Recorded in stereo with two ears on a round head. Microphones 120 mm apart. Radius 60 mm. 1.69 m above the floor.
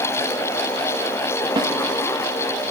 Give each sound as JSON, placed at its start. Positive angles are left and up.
{"t": 1.6, "sound": "a snare drum", "side_deg": -35, "distance_m": 1.1}